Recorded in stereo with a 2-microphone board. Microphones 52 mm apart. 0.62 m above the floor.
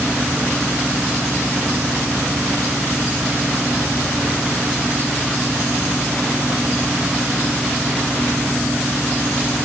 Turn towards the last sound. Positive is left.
No sound to turn to.